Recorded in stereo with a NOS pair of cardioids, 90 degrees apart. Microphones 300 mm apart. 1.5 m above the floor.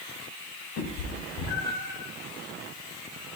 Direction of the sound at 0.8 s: 60° left.